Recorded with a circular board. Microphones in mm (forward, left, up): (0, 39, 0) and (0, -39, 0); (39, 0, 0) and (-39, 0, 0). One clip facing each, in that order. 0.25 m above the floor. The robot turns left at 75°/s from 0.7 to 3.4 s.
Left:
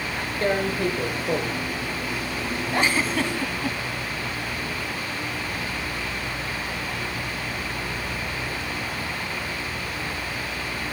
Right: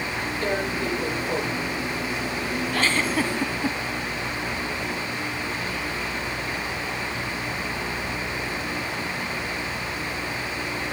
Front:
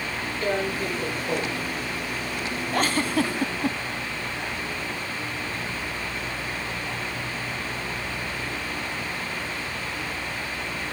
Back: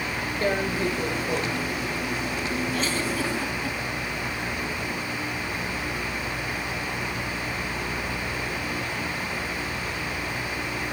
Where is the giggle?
30° left, 1.1 m; by 3.8 s 25° right, 1.1 m.